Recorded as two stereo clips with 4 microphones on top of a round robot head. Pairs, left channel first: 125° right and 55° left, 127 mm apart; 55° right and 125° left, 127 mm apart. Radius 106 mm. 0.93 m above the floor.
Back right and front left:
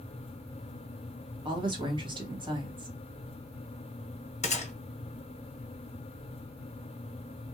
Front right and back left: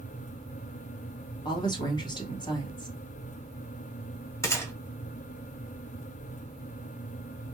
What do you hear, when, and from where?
1.4 s a woman speaking: straight ahead, 1.2 m
4.4 s a gunshot: 115° right, 1.0 m